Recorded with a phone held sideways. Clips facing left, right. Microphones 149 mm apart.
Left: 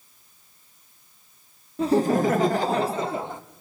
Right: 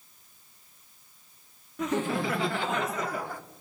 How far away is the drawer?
No drawer in this recording.